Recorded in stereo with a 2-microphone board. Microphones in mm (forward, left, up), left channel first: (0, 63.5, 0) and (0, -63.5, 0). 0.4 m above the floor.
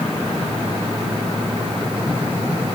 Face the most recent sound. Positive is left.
No sound to turn to.